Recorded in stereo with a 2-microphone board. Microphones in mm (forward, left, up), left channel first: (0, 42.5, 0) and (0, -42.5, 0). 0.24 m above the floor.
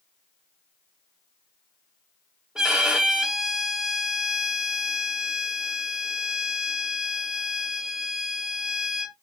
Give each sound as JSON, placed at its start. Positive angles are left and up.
{"t": 2.5, "sound": "a violin", "side_deg": -10, "distance_m": 0.5}